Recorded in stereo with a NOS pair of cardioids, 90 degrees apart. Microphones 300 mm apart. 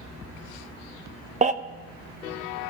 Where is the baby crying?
25° right, 1.0 m.